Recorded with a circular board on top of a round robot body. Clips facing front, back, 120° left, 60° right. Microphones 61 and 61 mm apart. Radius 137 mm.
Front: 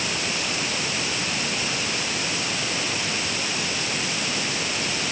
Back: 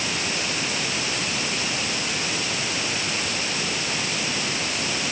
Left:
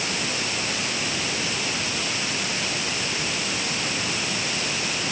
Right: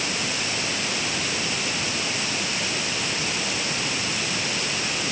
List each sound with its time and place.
Only background noise.